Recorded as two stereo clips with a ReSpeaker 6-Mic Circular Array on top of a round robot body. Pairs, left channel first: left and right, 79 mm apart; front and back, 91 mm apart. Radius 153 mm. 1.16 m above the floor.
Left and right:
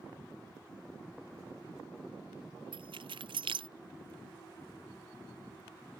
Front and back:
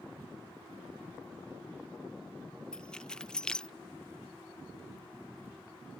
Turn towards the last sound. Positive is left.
turn(degrees=-80)